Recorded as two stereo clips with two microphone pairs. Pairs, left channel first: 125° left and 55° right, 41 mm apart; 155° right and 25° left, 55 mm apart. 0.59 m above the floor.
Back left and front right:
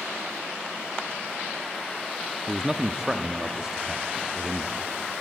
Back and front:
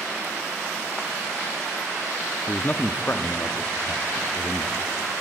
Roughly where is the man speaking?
Behind right.